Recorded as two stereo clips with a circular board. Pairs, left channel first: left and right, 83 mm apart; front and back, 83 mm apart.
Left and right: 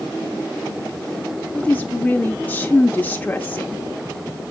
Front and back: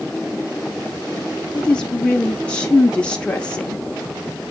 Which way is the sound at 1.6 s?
55° left.